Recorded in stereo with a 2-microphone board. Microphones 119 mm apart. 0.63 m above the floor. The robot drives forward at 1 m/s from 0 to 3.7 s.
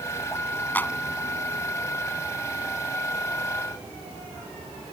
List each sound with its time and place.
0.8 s a clap: 15° left (ahead or behind)